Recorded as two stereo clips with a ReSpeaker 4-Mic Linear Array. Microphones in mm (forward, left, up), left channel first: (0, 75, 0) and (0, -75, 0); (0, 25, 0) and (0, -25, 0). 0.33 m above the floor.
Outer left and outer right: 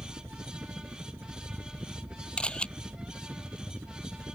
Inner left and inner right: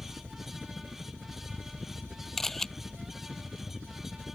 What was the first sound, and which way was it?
A helicopter, 15° right (ahead or behind).